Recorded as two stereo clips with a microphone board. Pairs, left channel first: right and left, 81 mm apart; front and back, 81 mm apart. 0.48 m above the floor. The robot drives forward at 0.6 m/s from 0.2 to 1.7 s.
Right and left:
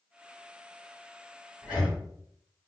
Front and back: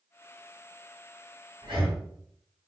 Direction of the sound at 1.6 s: 165° left.